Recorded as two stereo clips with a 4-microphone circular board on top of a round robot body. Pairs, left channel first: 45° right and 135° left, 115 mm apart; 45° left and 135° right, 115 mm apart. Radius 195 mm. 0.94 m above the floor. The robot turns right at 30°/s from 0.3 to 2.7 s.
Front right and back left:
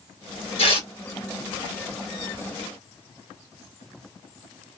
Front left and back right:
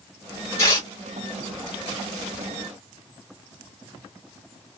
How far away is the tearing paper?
About 2 m.